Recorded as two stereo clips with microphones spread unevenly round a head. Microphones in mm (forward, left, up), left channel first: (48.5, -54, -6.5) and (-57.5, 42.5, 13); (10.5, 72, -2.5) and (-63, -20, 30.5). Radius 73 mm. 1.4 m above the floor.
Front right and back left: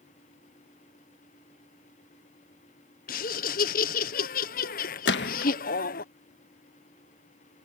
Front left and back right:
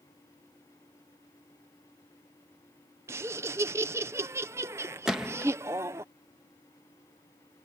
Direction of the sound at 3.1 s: 50° right.